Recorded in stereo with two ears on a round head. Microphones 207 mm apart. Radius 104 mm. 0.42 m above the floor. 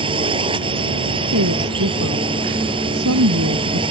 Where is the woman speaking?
75° right (ahead or behind).